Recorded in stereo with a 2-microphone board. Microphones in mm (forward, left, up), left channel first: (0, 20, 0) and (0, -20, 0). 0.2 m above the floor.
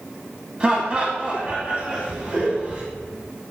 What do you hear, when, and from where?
0.6 s laughter: 25° right (ahead or behind), 1.1 m